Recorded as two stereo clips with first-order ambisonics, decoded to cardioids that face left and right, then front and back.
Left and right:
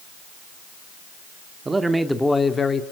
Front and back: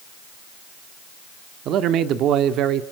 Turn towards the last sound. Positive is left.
turn(degrees=150)